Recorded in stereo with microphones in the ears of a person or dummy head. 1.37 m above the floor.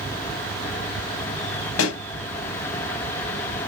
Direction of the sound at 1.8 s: 80° left.